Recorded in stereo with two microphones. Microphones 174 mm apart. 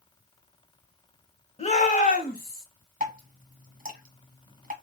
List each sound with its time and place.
1.6 s a shout: 35° left (ahead or behind), 1.2 m; by 2.6 s 60° left (ahead or behind), 1.9 m
3.0 s dripping: 45° right (ahead or behind), 1.3 m